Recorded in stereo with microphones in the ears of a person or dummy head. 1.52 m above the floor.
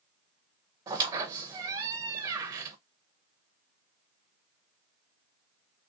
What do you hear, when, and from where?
0.9 s a squeak: 25° right (ahead or behind), 0.7 m